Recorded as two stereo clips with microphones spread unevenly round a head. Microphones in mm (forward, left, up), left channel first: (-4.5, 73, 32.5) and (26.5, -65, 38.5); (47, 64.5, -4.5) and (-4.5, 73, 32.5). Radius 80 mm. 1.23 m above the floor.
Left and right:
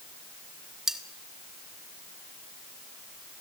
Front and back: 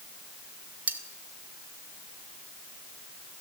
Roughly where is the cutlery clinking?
Behind.